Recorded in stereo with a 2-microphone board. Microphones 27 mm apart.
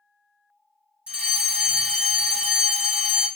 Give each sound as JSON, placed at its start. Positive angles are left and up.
{"t": 1.1, "sound": "a fire alarm", "side_deg": -50, "distance_m": 3.0}